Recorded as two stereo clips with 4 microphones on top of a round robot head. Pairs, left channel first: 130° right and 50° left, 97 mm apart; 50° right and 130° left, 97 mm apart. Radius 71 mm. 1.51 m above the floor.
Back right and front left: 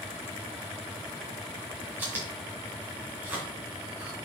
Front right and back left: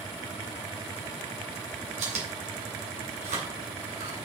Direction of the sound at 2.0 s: 120° left.